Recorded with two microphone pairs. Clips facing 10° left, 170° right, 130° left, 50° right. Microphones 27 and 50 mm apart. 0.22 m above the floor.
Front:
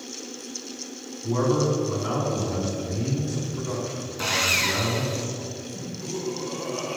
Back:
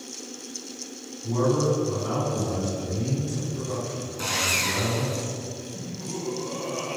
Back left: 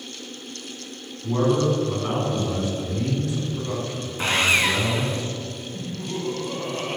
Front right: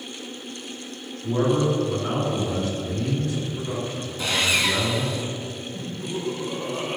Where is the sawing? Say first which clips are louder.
Front 3 dB, back left 3 dB; 80° left, 0.7 m.